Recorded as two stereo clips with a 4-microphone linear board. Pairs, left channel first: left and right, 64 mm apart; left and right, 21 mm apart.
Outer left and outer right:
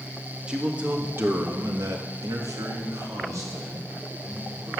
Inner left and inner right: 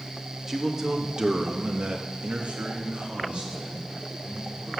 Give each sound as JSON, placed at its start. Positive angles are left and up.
{"t": 0.5, "sound": "a man speaking", "side_deg": -15, "distance_m": 2.0}